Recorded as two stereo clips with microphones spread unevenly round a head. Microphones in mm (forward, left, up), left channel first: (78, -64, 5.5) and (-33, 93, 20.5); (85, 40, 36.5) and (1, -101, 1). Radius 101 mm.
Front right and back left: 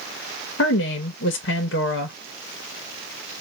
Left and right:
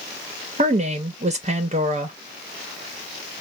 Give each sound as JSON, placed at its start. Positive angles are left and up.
{"t": 0.6, "sound": "a woman speaking", "azimuth_deg": -80, "distance_m": 0.8}